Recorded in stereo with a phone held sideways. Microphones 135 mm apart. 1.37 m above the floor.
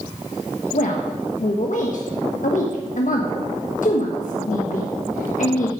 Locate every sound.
0.7 s a woman speaking: 70° left (ahead or behind), 1.2 m